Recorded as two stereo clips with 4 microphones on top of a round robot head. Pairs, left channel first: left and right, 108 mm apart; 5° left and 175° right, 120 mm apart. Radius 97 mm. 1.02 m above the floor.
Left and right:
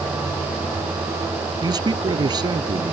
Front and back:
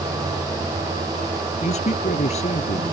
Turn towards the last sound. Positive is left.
turn(degrees=-40)